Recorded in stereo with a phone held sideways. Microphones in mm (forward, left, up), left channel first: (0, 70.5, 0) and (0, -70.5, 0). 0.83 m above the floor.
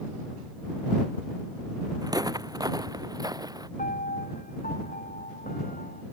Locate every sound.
2.0 s footsteps: 25° right (ahead or behind); by 3.7 s 30° right (ahead or behind)
3.8 s a piano: 85° left